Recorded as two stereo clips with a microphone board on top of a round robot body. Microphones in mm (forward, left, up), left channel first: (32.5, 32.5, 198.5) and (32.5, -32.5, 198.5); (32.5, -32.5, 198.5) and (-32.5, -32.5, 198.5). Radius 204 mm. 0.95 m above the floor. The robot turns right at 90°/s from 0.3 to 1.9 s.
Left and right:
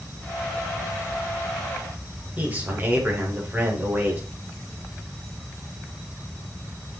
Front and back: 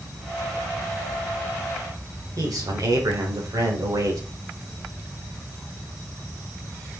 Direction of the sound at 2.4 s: 150° right.